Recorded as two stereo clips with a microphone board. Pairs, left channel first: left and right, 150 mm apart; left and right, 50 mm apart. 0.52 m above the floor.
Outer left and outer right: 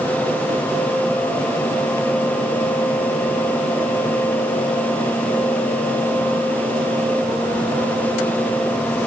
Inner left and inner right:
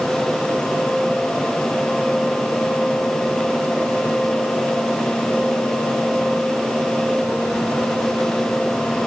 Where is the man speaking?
No man speaking in this recording.